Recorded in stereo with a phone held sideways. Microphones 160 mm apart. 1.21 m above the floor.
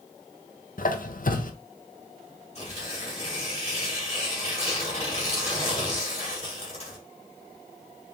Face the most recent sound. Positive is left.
turn(degrees=45)  # may be behind; listen again after turning